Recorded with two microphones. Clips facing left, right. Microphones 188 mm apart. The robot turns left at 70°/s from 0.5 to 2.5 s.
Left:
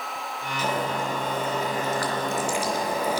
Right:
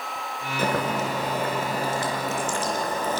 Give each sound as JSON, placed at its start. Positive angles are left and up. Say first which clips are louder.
{"t": 0.6, "sound": "boiling", "louder": "right 2 dB", "azimuth_deg": -55, "distance_m": 4.0}